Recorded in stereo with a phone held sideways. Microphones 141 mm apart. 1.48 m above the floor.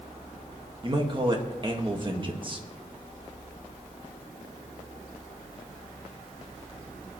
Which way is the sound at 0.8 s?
35° right (ahead or behind).